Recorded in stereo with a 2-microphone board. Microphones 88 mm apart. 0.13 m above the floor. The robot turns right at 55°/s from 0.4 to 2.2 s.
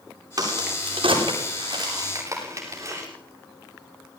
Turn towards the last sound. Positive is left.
turn(degrees=-35)  # may be behind; listen again after turning